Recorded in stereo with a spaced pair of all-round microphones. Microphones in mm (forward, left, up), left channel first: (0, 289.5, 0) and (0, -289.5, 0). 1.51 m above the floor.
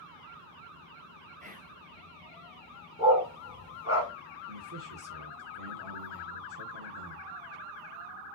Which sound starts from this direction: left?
A dog barking, at 3.0 s.